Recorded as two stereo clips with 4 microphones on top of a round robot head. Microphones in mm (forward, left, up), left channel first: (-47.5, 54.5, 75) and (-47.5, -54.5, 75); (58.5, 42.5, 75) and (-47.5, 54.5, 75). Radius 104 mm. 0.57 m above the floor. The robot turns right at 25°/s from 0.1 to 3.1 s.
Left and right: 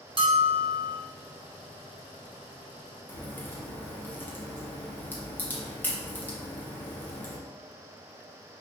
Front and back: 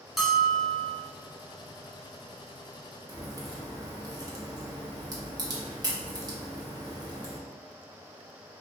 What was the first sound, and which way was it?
A bell, 100° right.